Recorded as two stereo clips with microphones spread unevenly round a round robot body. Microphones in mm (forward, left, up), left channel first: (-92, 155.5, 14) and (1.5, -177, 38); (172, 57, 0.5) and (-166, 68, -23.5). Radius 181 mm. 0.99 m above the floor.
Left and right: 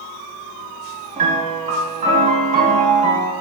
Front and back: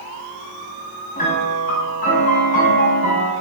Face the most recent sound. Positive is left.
turn(degrees=-30)